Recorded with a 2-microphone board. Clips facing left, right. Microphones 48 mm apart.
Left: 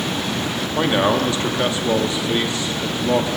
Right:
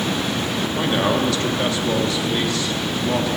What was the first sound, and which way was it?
A man speaking, 20° left (ahead or behind).